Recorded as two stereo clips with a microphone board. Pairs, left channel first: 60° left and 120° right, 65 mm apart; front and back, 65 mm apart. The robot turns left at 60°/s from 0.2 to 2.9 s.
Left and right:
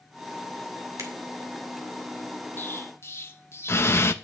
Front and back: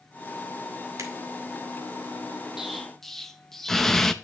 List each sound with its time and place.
1.0 s a finger snap: 150° right, 2 m; by 1.1 s 155° right, 2 m
2.6 s an explosion: 100° left, 0.6 m; by 4.1 s 80° left, 0.6 m